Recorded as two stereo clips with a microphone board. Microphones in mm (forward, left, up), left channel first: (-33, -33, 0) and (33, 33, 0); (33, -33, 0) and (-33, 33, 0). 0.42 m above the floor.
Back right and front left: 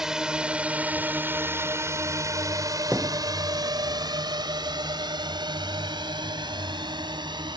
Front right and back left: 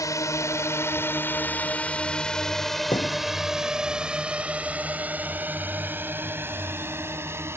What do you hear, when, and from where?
0.0 s a drone: 35° right; by 7.6 s 75° left
2.9 s a thud: 30° right